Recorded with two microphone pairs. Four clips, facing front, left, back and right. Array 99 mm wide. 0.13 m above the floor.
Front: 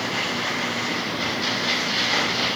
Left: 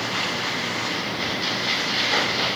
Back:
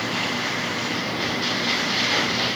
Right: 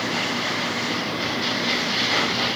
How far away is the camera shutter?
No camera shutter in this recording.